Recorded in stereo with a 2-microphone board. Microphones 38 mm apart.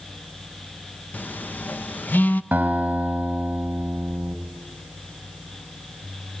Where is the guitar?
55° right (ahead or behind), 2 m.